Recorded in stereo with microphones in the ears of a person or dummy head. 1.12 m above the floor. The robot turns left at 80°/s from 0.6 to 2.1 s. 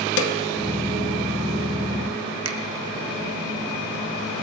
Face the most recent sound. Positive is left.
turn(degrees=-90)